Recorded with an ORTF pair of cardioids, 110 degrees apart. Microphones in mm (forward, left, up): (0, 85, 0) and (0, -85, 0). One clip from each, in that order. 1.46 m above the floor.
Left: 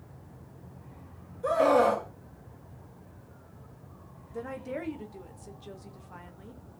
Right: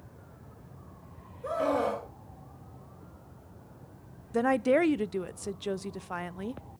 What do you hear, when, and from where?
1.4 s a scream: 35° left, 1.9 m
4.3 s a woman speaking: 60° right, 0.6 m